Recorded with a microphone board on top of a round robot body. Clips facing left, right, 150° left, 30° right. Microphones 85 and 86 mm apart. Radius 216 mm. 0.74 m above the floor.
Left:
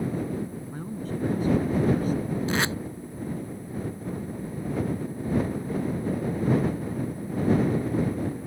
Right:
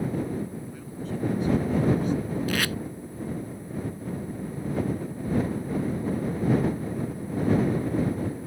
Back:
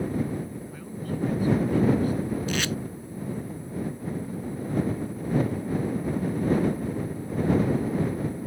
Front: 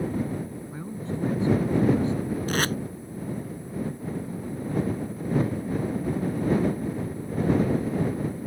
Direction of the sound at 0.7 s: 40° left.